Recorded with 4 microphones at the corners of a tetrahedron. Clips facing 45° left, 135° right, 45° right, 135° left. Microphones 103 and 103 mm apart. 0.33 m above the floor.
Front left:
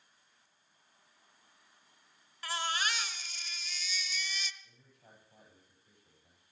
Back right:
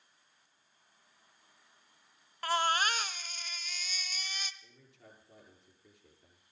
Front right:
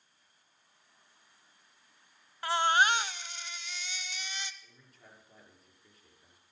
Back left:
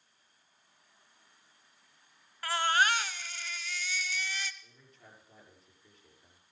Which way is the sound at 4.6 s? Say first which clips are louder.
Back right 4 dB, back left 1 dB; 130° right.